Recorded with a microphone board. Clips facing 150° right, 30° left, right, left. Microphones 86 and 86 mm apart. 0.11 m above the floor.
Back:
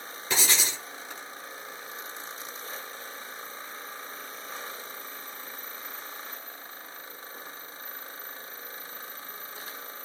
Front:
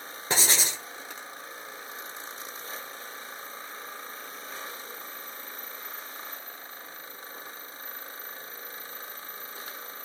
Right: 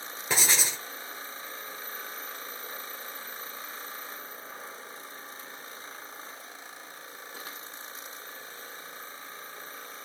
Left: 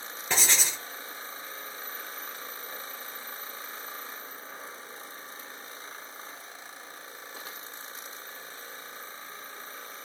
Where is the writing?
10° right, 1.3 m.